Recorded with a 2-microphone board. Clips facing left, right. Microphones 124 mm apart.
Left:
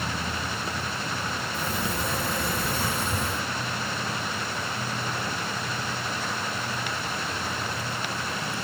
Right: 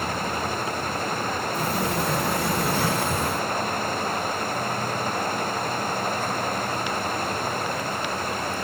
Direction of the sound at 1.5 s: 75° right (ahead or behind).